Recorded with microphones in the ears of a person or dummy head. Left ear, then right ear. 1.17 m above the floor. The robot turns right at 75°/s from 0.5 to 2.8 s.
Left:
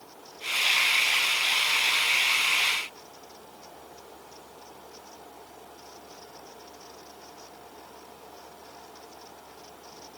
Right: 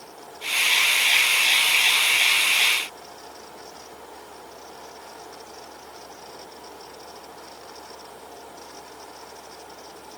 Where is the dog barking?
No dog barking in this recording.